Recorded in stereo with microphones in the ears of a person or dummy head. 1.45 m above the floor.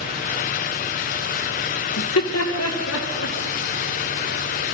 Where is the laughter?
80° left, 1.7 m; by 3.4 s 85° left, 3 m.